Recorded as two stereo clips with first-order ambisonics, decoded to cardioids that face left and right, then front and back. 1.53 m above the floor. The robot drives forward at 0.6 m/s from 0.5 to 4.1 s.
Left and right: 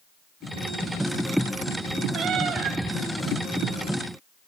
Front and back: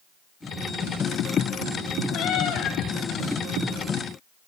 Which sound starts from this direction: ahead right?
A cat meowing, at 2.1 s.